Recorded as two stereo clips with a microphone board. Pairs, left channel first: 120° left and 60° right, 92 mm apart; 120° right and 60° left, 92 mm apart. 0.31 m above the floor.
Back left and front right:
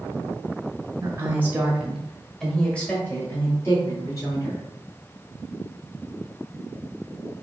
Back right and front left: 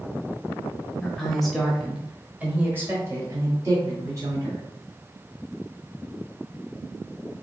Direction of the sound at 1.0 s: 45° right.